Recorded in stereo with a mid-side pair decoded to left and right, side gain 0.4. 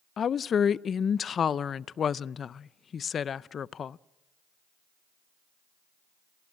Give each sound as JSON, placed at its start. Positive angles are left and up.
{"t": 0.2, "sound": "a woman speaking", "azimuth_deg": 55, "distance_m": 0.5}